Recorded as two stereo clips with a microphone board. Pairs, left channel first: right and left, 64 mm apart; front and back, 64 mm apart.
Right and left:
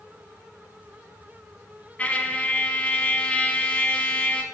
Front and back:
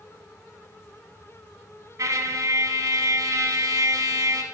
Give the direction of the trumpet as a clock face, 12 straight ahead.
5 o'clock.